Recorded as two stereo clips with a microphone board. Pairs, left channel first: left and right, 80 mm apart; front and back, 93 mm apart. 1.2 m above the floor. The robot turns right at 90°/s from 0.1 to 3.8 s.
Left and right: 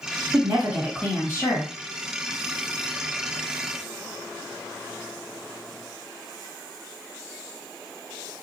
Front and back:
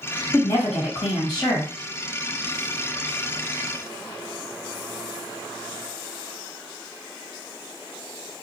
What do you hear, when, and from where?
0.3 s a woman speaking: 50° right, 1.9 m; by 1.7 s 75° left, 1.9 m